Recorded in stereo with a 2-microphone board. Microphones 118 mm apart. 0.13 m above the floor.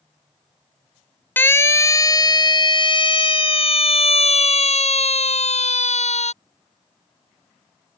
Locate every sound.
1.4 s a siren: 15° left (ahead or behind); by 6.3 s 75° left (ahead or behind)